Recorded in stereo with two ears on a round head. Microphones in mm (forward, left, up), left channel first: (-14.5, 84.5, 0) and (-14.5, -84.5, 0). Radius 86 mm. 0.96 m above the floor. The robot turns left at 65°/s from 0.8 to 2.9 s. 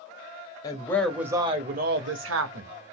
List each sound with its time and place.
0.6 s a woman speaking: 20° left, 0.8 m; by 2.7 s 105° right, 0.8 m